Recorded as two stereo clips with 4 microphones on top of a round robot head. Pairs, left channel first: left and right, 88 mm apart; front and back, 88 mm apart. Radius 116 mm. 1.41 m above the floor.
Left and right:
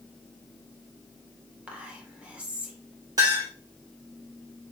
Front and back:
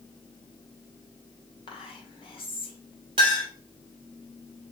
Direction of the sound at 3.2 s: 150° right.